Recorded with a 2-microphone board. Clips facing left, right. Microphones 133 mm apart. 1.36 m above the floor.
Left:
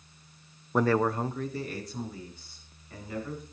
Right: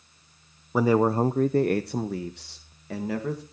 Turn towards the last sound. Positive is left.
turn(degrees=-90)